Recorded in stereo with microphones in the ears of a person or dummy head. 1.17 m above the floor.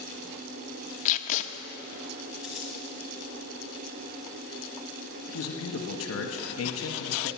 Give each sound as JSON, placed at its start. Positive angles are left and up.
{"t": 1.1, "sound": "tape being pulled", "side_deg": 40, "distance_m": 0.8}
{"t": 2.4, "sound": "crumpling", "side_deg": 0, "distance_m": 2.0}
{"t": 5.3, "sound": "a man speaking", "side_deg": 80, "distance_m": 1.5}